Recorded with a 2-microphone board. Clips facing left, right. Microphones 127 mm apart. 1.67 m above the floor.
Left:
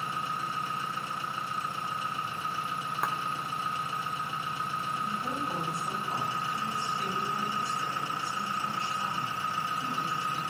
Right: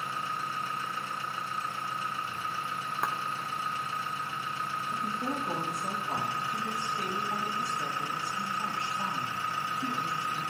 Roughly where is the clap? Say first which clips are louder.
Even; centre.